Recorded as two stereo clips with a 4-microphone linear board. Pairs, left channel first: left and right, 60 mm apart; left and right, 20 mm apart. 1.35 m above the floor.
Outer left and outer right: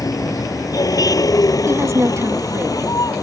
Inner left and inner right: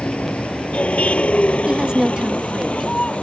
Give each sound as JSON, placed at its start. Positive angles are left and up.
{"t": 0.0, "sound": "a vehicle", "side_deg": 85}
{"t": 1.7, "sound": "a woman speaking", "side_deg": -55}